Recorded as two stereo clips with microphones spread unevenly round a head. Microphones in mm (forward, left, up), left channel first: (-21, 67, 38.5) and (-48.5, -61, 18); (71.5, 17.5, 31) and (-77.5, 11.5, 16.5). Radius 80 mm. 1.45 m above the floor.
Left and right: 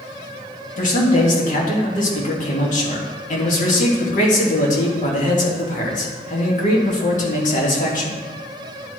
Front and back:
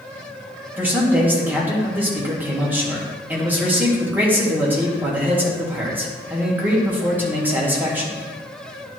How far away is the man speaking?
About 1.9 m.